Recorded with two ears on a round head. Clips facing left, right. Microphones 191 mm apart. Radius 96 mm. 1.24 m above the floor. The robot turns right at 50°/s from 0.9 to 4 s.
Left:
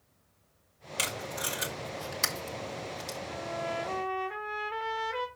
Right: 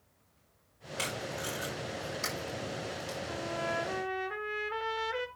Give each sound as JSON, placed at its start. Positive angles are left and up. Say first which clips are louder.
{"t": 1.0, "sound": "tape being pulled", "louder": "even", "side_deg": 40, "distance_m": 2.0}
{"t": 3.3, "sound": "a trumpet", "louder": "left 1 dB", "azimuth_deg": -40, "distance_m": 0.9}